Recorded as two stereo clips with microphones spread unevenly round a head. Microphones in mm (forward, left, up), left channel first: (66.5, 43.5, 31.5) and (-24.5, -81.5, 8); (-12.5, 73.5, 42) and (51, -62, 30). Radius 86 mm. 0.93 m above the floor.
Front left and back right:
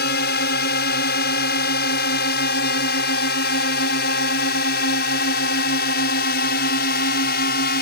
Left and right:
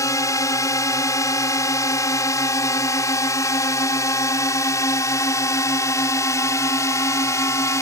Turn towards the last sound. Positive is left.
turn(degrees=45)